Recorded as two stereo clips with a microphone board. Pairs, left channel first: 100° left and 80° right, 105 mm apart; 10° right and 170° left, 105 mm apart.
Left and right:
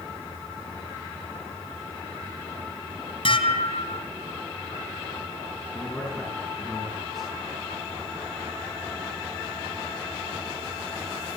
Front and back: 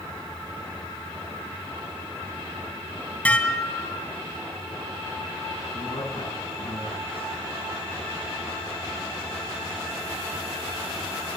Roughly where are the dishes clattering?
Ahead left.